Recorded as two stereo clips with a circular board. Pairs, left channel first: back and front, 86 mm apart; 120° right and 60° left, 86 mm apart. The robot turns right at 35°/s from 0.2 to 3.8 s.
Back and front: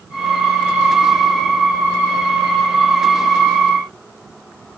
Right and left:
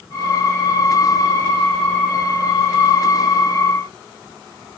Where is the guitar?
I don't hear a guitar.